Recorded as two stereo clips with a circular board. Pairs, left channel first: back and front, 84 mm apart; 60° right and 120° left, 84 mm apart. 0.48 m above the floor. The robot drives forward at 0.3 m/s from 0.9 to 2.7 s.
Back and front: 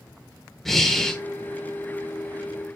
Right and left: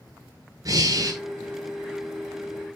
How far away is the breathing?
About 1.1 m.